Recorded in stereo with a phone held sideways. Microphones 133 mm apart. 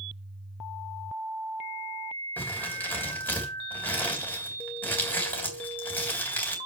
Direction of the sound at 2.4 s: 15° left (ahead or behind).